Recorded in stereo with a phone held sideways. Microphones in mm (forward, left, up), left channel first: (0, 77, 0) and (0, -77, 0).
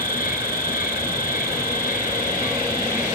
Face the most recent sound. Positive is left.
turn(degrees=65)  # may be behind; listen again after turning